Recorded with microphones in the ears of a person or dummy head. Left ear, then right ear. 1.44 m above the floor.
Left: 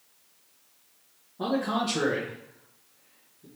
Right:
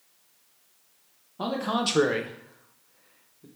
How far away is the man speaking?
About 0.8 m.